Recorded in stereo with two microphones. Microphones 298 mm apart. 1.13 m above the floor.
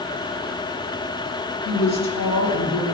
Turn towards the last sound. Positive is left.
turn(degrees=60)  # may be behind; listen again after turning